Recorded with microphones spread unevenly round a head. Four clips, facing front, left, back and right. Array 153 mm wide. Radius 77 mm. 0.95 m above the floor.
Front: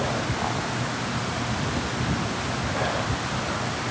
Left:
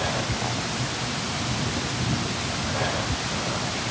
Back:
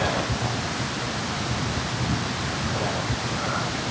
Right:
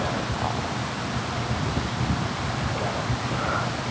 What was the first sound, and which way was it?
Only background noise.